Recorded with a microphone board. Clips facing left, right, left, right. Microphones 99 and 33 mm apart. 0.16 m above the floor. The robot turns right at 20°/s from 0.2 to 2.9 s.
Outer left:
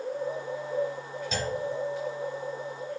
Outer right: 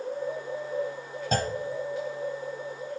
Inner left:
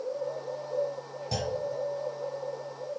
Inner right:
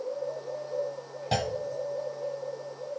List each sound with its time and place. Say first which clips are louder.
1.3 s a clunk: outer right 4 dB, inner right 4 dB; 50° right (ahead or behind), 0.6 m; by 1.5 s 55° right (ahead or behind), 0.6 m